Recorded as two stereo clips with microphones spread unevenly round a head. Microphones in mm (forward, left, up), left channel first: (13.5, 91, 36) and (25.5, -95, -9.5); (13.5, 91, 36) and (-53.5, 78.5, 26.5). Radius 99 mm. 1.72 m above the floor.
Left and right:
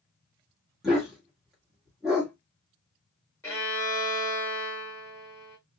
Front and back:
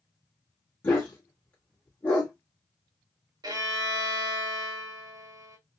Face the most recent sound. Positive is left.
turn(degrees=170)